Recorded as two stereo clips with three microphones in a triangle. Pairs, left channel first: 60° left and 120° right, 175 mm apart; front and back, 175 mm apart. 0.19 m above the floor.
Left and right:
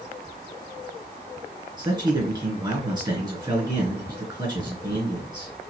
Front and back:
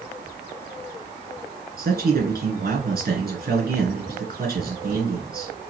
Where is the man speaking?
Straight behind, 2.5 m.